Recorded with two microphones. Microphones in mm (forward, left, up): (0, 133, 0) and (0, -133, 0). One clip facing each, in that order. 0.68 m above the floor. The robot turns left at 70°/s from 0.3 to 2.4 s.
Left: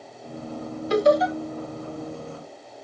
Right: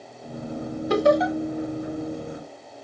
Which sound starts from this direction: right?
Laughter, at 0.9 s.